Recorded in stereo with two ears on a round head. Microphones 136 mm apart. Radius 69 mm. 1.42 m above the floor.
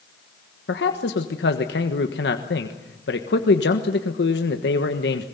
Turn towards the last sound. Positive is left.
turn(degrees=90)